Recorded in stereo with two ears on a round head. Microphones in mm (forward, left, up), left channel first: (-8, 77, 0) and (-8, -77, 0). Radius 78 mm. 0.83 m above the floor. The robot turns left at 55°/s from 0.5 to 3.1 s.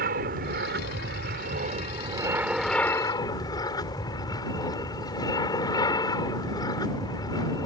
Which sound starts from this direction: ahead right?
An aircraft, at 0.0 s.